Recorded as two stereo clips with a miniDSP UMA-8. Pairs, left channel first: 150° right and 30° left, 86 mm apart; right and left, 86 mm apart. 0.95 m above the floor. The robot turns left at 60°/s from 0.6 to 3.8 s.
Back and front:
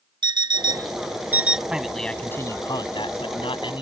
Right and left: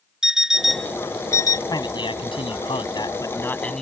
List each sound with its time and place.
0.2 s an alarm clock: 5° left; by 1.6 s 55° right
1.7 s a man speaking: 50° right; by 3.8 s 175° right